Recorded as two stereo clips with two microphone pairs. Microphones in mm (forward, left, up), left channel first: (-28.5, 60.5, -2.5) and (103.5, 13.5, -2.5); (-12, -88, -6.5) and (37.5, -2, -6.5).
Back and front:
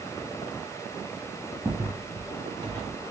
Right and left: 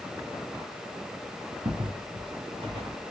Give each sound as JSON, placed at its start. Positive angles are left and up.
{"t": 1.6, "sound": "footsteps", "azimuth_deg": 55, "distance_m": 2.5}